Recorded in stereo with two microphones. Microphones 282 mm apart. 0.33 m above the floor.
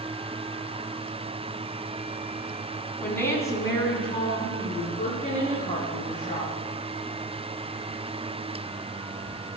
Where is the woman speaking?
5° left (ahead or behind), 3.5 m; by 6.5 s 30° left (ahead or behind), 7.5 m.